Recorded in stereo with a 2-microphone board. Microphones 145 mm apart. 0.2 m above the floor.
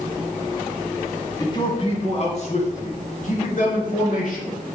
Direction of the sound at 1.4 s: 25° left (ahead or behind).